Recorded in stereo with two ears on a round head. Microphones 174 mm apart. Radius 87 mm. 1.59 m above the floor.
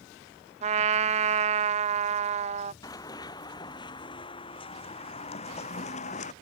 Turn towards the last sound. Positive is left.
turn(degrees=40)  # may be behind; listen again after turning